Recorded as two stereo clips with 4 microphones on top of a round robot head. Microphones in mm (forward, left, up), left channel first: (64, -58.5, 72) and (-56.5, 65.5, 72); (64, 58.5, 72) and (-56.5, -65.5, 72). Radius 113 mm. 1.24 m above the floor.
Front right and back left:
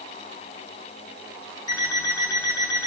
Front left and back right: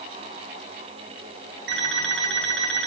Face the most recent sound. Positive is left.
turn(degrees=-115)